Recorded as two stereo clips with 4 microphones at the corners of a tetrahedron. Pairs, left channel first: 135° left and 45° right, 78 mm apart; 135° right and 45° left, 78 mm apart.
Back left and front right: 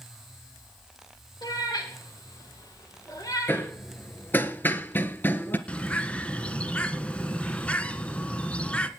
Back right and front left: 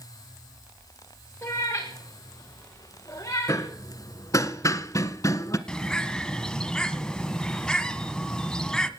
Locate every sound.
1.4 s a cat meowing: 170° left, 9 m; by 3.7 s straight behind, 8 m
3.5 s hammering: 170° right, 1.4 m
5.7 s a bird: 165° left, 1.4 m